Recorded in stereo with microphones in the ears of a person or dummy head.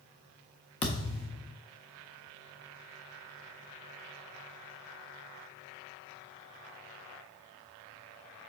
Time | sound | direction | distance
0.8 | a thud | 30° left (ahead or behind) | 1.1 m